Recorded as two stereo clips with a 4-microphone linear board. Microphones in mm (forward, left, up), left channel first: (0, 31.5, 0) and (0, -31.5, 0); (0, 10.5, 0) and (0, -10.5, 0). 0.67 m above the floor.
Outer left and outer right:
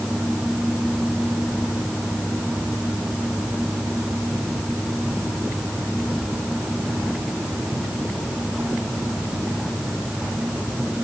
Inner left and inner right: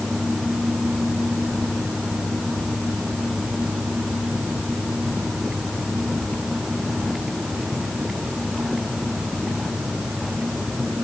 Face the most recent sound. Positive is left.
No sound to turn to.